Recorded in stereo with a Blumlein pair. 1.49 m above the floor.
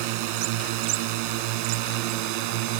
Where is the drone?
45° right.